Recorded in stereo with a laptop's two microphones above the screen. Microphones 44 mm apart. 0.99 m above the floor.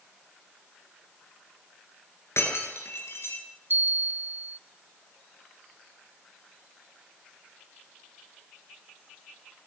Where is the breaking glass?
70° left (ahead or behind), 10 m.